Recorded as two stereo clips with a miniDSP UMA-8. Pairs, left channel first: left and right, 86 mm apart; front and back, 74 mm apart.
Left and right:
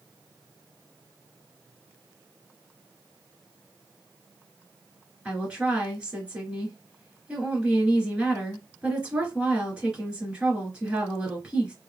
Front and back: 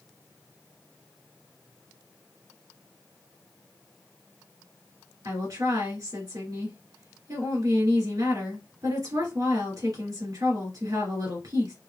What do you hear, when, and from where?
5.2 s a woman speaking: 165° right, 3 m